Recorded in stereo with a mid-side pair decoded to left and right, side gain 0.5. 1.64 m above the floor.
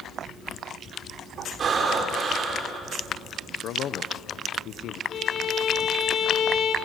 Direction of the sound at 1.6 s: 45° right.